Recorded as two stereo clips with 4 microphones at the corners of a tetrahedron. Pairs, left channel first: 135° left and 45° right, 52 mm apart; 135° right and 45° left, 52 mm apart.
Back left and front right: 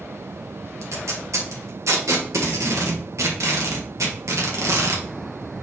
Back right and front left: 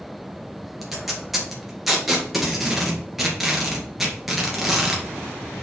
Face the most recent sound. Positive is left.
turn(degrees=-45)